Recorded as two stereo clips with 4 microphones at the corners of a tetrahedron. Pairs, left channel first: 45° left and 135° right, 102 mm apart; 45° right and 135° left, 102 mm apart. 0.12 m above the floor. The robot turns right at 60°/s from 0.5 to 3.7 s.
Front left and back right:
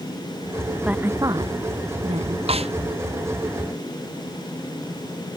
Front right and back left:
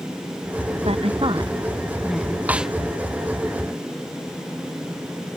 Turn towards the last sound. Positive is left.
turn(degrees=-80)